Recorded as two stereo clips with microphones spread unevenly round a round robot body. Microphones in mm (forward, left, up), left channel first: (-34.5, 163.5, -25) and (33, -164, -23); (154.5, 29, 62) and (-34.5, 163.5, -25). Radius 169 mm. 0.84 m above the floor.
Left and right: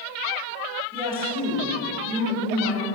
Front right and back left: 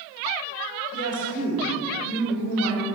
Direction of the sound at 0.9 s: 5° right.